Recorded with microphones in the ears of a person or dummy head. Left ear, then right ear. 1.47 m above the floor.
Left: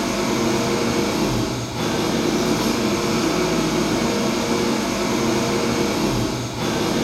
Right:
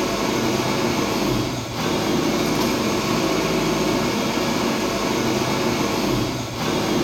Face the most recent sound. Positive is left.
turn(degrees=-20)  # may be behind; listen again after turning